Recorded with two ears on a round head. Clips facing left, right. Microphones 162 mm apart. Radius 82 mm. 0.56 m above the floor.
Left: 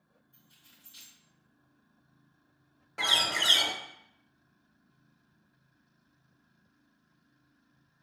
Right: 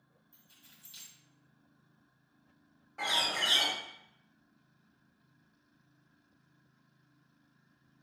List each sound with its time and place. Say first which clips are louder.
0.3 s keys jangling: even; 70° right (ahead or behind), 2 m
3.0 s a bird: left 2 dB; 75° left (ahead or behind), 0.9 m